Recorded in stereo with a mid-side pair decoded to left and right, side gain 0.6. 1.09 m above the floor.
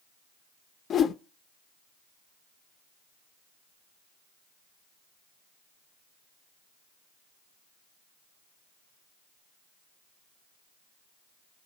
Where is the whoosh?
40° left, 0.5 m.